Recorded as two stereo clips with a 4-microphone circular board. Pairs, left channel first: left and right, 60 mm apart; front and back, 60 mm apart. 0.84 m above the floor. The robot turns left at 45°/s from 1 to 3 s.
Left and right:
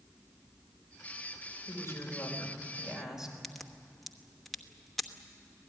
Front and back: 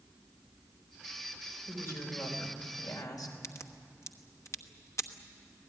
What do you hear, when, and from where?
1.7 s a woman speaking: 55° left, 4 m; by 3.3 s 5° right, 4 m
3.4 s a crack: 5° left, 1.1 m